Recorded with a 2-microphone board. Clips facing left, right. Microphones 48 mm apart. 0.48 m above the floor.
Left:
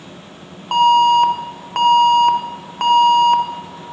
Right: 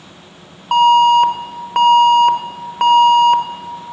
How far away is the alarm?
About 0.7 m.